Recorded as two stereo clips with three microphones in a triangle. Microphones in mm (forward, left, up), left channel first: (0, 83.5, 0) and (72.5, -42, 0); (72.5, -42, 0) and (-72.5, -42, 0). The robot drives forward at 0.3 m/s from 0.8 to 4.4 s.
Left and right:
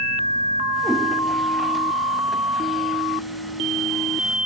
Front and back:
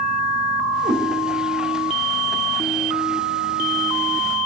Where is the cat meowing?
150° right, 2 m.